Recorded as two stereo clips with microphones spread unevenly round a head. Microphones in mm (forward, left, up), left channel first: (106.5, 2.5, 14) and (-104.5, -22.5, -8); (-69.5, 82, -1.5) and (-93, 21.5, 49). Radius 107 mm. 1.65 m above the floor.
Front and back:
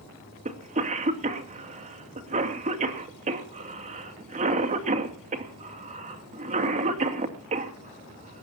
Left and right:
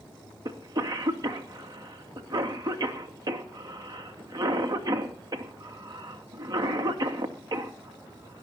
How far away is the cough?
About 2.5 m.